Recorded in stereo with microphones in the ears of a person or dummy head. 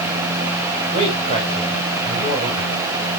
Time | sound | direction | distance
0.9 | a man speaking | 35° right (ahead or behind) | 4.5 m